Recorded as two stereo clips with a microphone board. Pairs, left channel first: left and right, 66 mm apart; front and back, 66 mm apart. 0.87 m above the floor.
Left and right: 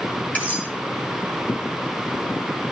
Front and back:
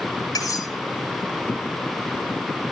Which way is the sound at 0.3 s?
25° left.